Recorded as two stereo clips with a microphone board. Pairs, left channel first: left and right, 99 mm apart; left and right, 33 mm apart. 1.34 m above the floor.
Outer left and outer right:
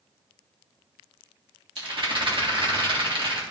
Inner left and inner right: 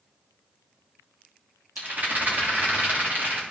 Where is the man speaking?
I don't hear a man speaking.